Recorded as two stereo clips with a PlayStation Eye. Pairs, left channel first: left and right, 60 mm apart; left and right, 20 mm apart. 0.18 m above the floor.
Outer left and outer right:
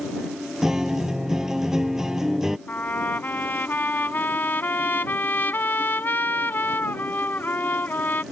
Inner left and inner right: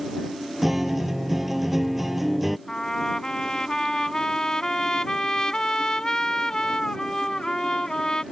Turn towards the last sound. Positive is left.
turn(degrees=35)  # may be behind; listen again after turning